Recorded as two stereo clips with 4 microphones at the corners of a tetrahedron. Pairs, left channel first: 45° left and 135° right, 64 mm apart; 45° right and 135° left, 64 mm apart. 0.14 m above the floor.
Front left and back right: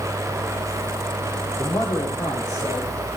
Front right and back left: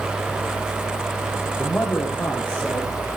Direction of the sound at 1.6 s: 25° left.